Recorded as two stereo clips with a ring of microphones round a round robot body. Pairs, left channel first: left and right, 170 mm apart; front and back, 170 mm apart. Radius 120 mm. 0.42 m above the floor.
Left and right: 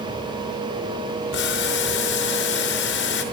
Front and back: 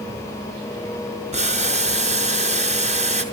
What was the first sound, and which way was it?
Boiling, 130° left.